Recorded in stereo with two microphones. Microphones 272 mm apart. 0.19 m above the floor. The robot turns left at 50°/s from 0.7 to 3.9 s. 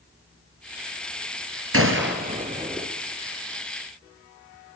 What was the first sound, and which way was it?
A gunshot, 55° right (ahead or behind).